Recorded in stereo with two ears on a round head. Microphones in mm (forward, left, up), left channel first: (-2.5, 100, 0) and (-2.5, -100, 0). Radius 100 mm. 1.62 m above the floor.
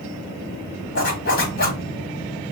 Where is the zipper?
45° left (ahead or behind), 2.5 m.